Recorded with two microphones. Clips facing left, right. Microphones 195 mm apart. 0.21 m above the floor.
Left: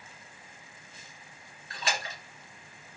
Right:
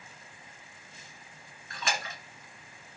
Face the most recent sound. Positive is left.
turn(degrees=35)  # may be behind; listen again after turning